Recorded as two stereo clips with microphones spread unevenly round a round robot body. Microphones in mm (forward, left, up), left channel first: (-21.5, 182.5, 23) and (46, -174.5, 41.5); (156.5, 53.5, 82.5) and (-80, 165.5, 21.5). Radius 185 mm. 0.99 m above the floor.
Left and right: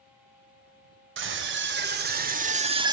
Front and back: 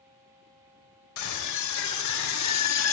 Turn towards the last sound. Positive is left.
turn(degrees=0)